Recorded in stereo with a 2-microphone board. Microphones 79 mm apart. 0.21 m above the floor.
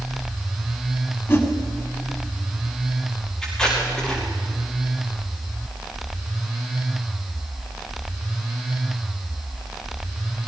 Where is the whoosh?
30° left (ahead or behind), 1.9 m.